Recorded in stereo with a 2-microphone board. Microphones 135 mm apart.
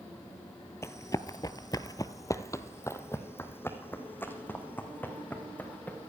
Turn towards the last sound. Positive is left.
turn(degrees=10)  # may be behind; listen again after turning